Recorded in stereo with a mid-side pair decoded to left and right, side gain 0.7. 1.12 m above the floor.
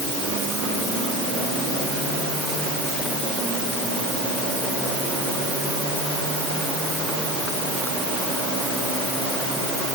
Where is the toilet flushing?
No toilet flushing in this recording.